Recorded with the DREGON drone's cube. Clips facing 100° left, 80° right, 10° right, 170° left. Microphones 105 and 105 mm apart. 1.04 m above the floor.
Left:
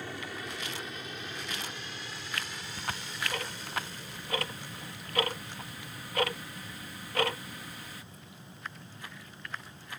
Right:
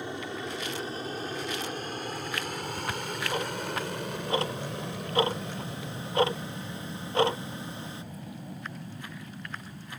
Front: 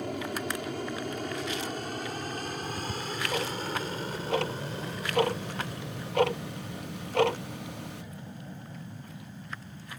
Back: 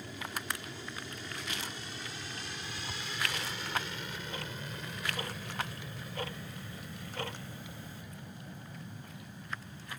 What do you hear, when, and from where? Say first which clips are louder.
0.0 s an aircraft: right 5 dB, front 9 dB; 15° right; by 10.0 s 80° right
2.6 s ticking: right 6 dB, front 8 dB; 15° right